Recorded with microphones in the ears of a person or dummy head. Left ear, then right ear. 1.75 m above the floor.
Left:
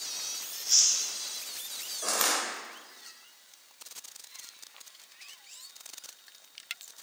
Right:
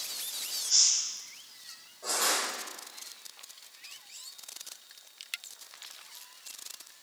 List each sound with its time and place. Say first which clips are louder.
0.5 s chewing: even; 45° left (ahead or behind), 1.2 m
2.0 s crushing: left 1 dB; 65° left (ahead or behind), 0.8 m